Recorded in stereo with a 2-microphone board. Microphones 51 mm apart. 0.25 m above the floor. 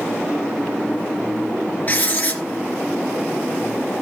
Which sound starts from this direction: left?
Writing, at 1.9 s.